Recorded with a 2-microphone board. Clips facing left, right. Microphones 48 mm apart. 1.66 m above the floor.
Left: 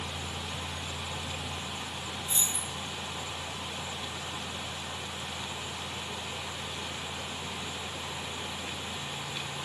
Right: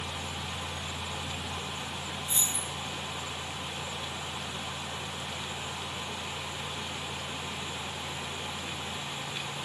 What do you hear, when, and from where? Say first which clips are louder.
2.3 s keys jangling: even; 15° right (ahead or behind), 1.3 m